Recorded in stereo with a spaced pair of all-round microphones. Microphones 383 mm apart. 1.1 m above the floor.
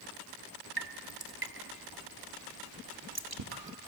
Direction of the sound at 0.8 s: 70° right (ahead or behind).